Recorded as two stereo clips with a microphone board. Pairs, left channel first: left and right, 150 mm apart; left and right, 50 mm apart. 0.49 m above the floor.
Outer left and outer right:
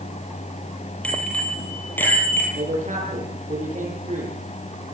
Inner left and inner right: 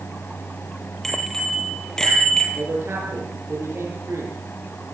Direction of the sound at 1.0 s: 10° left (ahead or behind).